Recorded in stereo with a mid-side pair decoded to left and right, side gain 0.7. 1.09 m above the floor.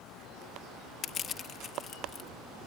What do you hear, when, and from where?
1.0 s crushing: 35° left